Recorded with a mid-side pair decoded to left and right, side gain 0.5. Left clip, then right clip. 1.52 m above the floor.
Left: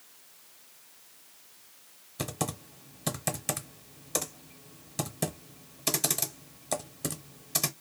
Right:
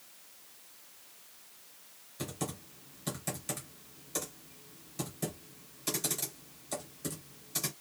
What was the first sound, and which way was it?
Typing on a keyboard, 70° left.